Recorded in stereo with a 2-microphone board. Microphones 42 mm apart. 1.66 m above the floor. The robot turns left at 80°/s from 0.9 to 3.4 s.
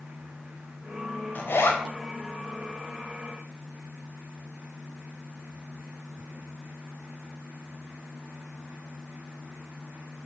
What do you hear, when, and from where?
1.4 s a zipper: 130° left, 3.5 m; by 1.8 s 90° left, 3.5 m